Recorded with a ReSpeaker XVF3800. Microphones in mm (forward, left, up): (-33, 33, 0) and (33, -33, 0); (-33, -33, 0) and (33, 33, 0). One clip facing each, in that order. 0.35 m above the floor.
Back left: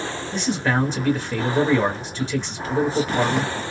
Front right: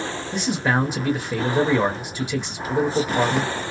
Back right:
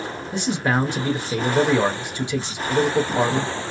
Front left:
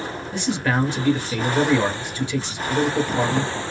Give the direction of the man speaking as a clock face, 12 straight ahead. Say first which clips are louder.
Even, back right 1 dB; 4 o'clock.